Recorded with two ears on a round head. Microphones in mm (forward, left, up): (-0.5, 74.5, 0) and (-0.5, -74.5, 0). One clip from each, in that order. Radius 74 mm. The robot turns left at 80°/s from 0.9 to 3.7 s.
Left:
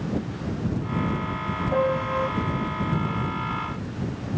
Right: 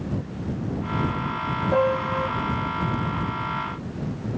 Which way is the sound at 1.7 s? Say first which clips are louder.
Right 1 dB; 145° right.